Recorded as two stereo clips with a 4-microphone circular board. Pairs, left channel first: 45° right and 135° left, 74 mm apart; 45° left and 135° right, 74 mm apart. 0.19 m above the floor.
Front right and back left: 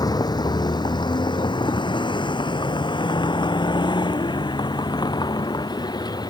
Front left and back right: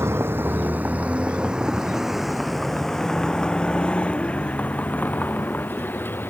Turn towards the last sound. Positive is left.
turn(degrees=-20)